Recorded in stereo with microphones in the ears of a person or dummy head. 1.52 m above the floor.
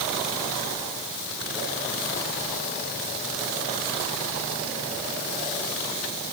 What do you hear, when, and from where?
Only background noise.